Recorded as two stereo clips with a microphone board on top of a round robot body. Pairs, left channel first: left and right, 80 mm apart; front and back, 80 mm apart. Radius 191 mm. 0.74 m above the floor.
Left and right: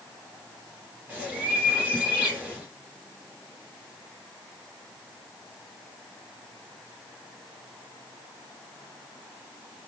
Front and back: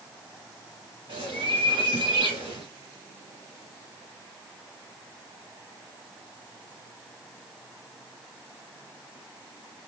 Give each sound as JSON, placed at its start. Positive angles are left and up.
{"t": 1.1, "sound": "a bird", "azimuth_deg": -165, "distance_m": 0.7}